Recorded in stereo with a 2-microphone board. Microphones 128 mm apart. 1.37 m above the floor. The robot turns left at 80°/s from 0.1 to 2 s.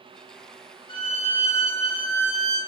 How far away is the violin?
About 1.1 m.